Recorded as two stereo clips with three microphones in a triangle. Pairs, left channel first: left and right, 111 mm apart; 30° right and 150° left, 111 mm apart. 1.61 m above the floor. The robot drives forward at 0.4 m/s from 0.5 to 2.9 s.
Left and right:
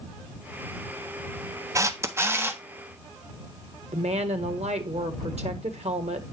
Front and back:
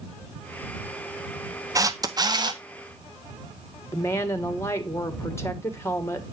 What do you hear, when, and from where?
1.8 s a camera shutter: 150° right, 0.7 m; by 2.6 s 160° right, 1.0 m
3.9 s a woman speaking: 95° right, 1.4 m